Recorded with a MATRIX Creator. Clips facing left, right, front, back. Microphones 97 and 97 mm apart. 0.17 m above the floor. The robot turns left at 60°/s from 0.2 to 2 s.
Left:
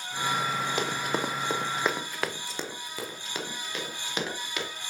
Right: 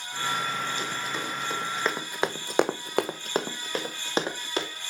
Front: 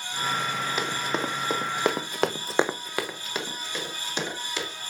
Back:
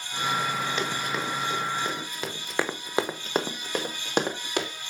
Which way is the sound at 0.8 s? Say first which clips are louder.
Left 3 dB, front 1 dB; 85° left.